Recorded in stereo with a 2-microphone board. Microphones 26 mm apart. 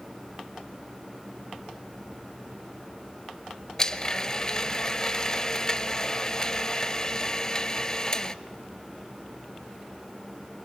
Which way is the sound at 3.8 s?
20° left (ahead or behind).